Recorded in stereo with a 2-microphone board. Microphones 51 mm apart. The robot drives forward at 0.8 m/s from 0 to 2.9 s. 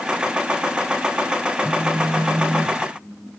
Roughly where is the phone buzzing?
Right.